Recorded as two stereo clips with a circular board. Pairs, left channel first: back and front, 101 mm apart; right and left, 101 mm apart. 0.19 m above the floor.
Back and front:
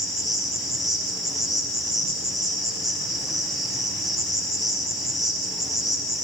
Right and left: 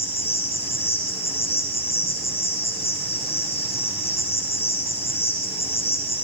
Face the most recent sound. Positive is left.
turn(degrees=-90)